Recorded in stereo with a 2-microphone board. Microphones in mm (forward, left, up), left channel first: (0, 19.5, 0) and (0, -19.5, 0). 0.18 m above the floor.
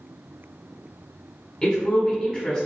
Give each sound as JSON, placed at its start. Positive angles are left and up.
{"t": 1.6, "sound": "a woman speaking", "side_deg": 15, "distance_m": 1.1}